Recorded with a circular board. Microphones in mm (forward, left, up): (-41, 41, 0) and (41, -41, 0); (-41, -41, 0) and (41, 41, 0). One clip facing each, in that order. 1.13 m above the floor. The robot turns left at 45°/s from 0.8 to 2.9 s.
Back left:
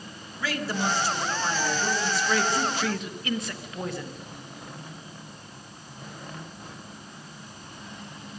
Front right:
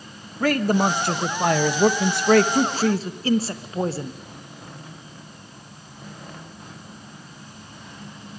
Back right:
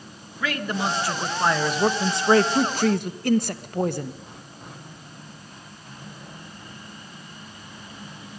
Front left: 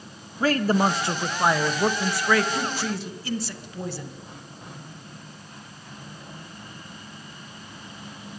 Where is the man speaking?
10° right, 1.0 m; by 4.2 s 100° right, 1.0 m.